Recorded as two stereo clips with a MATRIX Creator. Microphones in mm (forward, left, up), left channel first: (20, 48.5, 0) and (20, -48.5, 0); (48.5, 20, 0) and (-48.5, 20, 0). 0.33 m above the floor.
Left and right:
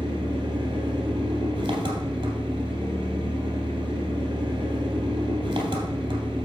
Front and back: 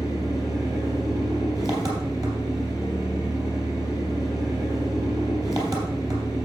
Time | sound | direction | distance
0.0 | an engine running | 130° right | 3 m